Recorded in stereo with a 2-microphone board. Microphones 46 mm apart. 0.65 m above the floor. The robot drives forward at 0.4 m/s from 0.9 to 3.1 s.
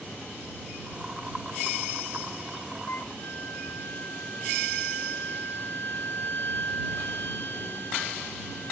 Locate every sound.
2.9 s a flute: 60° left (ahead or behind); by 8.7 s 55° left (ahead or behind)